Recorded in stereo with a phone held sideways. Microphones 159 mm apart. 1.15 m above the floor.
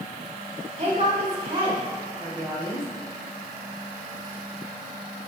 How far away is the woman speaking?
About 3.5 m.